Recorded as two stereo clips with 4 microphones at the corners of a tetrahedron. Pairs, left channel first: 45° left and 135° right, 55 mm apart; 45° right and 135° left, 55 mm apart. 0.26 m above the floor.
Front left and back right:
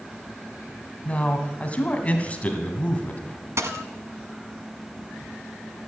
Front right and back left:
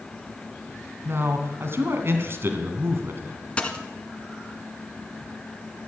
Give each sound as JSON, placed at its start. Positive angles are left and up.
{"t": 1.1, "sound": "a man speaking", "azimuth_deg": 105, "distance_m": 2.0}
{"t": 3.6, "sound": "a dropped coin", "azimuth_deg": -115, "distance_m": 1.3}